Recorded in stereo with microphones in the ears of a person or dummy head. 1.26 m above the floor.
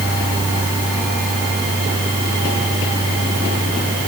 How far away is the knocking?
I don't hear knocking.